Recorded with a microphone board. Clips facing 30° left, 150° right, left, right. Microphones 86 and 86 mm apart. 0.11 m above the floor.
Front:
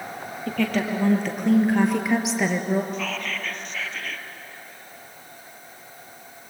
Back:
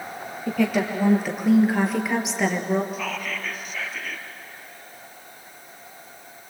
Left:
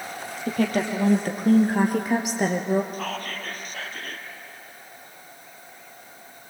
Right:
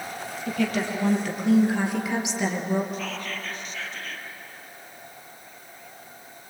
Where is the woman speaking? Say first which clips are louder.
Back 2 dB, left 2 dB; 130° left, 3 m; by 2.8 s 110° left, 2 m.